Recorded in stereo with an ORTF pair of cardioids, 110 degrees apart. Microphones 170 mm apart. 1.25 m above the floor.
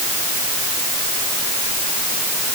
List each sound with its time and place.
Only background noise.